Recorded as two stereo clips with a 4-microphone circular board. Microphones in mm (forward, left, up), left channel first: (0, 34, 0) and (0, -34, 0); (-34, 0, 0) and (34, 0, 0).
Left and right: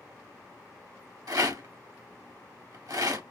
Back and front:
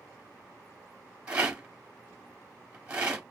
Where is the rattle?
70° right, 1.5 m.